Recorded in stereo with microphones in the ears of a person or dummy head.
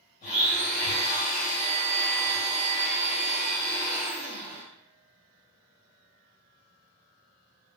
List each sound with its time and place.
0.2 s a blender: 35° left (ahead or behind), 1.2 m